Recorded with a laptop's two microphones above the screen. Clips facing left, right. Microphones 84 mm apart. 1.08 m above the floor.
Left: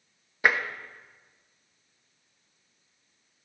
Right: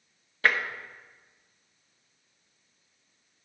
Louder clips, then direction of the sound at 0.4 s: Left 1 dB; 15° left (ahead or behind).